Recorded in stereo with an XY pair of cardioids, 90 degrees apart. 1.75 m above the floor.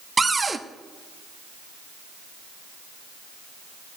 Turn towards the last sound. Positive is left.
turn(degrees=-25)